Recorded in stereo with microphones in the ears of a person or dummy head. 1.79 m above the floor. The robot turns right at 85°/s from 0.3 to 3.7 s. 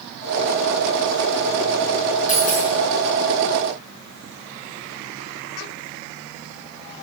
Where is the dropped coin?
50° left, 3 m; by 2.7 s 85° left, 3 m.